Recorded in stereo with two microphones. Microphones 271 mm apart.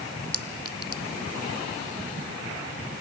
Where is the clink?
60° right (ahead or behind), 1.5 m.